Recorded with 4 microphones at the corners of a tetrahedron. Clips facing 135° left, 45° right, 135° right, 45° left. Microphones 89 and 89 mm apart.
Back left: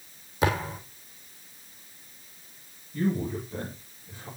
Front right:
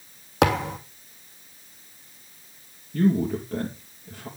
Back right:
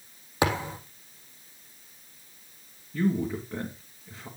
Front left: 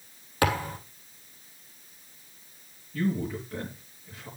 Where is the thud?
60° right, 3 m.